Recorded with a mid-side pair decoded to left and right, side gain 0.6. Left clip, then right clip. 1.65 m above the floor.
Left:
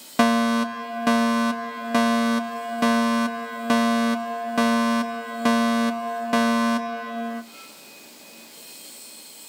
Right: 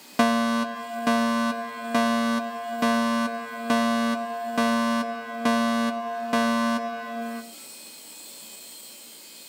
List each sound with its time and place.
0.2 s a fire alarm: 10° left, 1.8 m